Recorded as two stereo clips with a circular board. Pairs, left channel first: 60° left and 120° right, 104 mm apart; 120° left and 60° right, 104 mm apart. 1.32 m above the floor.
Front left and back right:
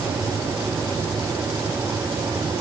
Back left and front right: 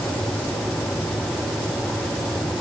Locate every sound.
Only background noise.